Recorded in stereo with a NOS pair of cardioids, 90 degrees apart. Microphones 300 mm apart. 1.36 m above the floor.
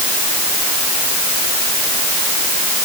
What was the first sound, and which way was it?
Only background noise.